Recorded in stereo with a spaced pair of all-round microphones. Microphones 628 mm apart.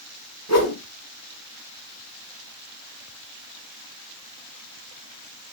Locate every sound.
0.5 s a whoosh: 25° left (ahead or behind), 2.5 m